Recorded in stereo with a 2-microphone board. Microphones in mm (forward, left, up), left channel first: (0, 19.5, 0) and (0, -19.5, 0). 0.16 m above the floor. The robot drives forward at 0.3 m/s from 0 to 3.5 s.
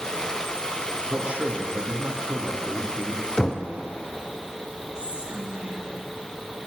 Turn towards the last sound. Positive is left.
turn(degrees=-20)  # may be behind; listen again after turning